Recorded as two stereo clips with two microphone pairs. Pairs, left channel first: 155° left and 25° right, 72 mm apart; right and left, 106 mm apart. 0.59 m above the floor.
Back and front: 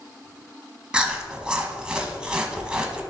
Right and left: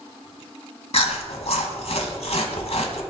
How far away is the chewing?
About 1.0 m.